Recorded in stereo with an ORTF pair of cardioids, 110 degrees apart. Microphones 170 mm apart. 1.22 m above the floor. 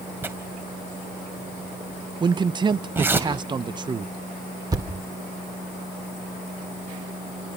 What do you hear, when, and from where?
0.2 s tearing paper: 15° right, 2.5 m
2.2 s a man speaking: 25° right, 0.7 m
4.7 s a thud: 25° right, 2.0 m